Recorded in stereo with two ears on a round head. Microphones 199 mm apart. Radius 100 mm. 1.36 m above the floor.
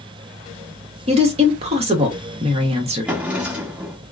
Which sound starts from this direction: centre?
A drawer, at 3.1 s.